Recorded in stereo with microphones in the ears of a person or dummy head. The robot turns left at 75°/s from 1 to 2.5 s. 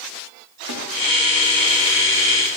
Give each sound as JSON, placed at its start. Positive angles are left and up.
{"t": 0.7, "sound": "a snare drum", "side_deg": -85, "distance_m": 2.5}